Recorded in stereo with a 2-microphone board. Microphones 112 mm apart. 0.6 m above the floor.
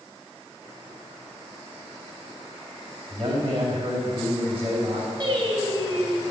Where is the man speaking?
30° right (ahead or behind), 3.5 m.